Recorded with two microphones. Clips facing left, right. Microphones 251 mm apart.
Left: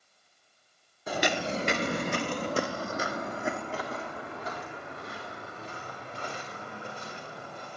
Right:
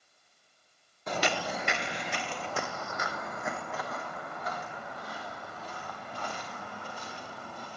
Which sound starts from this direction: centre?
Footsteps, at 1.1 s.